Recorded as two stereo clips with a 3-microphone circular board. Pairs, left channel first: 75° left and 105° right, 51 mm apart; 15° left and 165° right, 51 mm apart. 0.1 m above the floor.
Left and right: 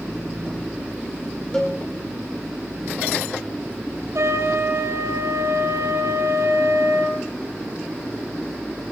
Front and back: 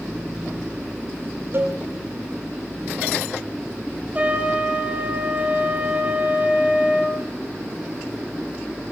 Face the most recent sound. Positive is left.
turn(degrees=-105)